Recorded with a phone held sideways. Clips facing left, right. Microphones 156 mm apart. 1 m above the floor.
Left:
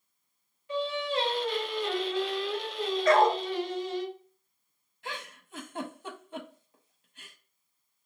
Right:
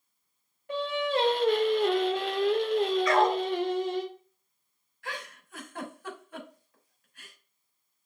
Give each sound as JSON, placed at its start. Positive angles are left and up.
{"t": 0.7, "sound": "singing", "side_deg": -60, "distance_m": 0.6}
{"t": 3.0, "sound": "a dog barking", "side_deg": 50, "distance_m": 0.8}
{"t": 5.0, "sound": "a giggle", "side_deg": 25, "distance_m": 0.6}